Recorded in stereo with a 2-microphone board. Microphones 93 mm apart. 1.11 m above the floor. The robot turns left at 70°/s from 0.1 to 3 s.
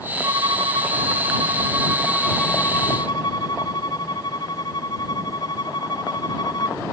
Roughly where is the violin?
Ahead right.